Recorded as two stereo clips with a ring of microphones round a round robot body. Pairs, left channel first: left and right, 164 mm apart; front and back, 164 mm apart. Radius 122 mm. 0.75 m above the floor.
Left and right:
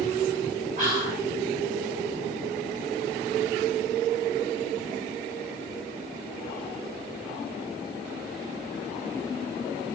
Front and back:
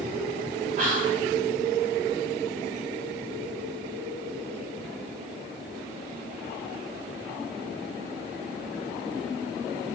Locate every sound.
0.8 s whispering: 135° right, 1.9 m